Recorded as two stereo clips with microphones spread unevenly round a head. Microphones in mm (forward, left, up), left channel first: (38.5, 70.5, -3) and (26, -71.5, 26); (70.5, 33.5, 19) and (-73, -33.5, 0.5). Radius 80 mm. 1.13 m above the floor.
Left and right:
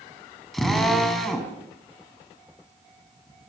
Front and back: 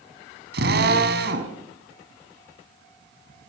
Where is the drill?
175° left, 4.5 m.